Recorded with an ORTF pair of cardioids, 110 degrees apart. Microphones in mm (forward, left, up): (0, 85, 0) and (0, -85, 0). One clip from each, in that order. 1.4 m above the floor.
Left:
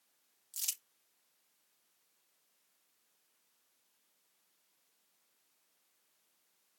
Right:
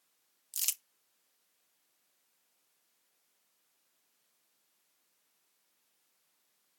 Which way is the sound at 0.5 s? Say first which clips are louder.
Right 4 dB; 40° right.